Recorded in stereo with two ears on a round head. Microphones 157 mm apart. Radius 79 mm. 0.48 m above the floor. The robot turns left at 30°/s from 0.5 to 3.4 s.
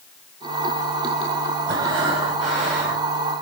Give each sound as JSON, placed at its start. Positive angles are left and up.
{"t": 1.7, "sound": "breathing", "azimuth_deg": -25, "distance_m": 5.5}